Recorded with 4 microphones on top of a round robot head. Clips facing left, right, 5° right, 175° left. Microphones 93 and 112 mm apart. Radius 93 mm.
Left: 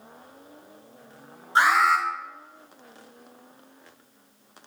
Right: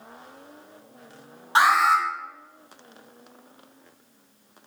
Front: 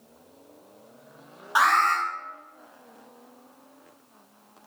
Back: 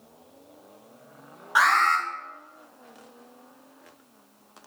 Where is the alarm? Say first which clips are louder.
Right 1 dB, even; 75° right, 6 m.